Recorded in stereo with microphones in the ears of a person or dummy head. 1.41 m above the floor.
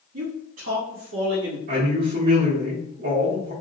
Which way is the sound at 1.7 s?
60° right (ahead or behind).